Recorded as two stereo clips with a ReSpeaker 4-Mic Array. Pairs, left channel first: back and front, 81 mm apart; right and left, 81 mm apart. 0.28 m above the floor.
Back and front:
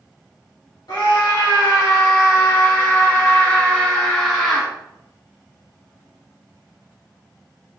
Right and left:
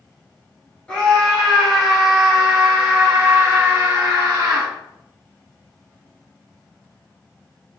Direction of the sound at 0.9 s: 160° right.